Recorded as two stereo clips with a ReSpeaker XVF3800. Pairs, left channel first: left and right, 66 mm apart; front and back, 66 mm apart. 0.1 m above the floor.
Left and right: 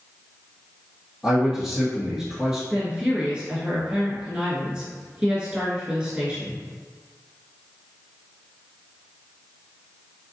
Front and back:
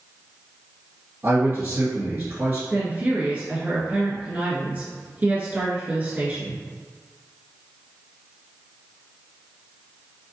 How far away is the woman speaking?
About 1.4 m.